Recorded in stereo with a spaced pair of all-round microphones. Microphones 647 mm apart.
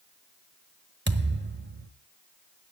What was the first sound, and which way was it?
A thud, 15° right (ahead or behind).